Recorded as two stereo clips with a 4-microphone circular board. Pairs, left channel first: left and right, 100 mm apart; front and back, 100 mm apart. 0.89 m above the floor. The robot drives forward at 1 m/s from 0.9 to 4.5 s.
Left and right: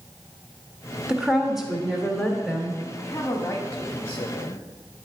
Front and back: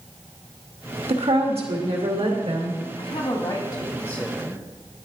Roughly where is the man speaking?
Ahead.